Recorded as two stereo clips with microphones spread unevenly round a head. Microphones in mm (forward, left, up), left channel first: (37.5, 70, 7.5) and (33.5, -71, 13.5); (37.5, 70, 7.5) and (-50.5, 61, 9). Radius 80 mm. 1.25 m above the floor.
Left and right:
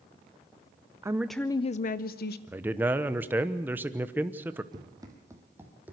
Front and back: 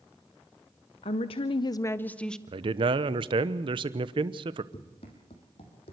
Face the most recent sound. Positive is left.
turn(degrees=-15)